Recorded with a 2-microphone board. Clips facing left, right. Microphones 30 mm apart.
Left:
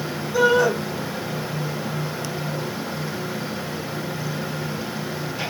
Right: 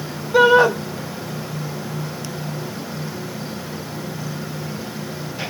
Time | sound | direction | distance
0.3 | a shout | 45° right (ahead or behind) | 1.5 m